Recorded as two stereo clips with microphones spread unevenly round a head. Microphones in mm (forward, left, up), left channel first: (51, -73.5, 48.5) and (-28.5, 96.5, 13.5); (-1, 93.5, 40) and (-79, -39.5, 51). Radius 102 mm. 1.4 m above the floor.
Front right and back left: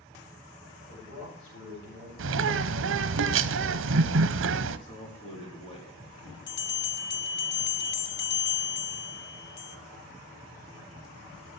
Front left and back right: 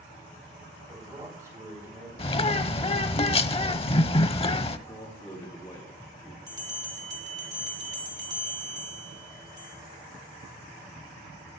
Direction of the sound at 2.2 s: 115° left.